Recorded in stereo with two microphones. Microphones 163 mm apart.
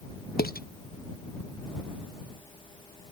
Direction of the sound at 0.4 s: 75° left (ahead or behind).